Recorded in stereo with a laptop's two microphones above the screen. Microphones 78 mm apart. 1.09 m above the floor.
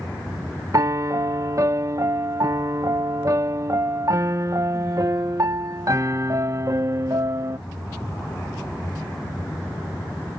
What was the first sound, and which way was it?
A piano, 45° right (ahead or behind).